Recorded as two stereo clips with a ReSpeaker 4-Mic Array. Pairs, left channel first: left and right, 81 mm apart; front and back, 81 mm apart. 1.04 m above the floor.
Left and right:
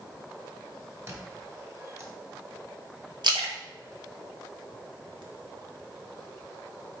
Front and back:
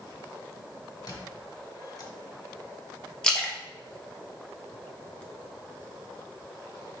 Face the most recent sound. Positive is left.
turn(degrees=-80)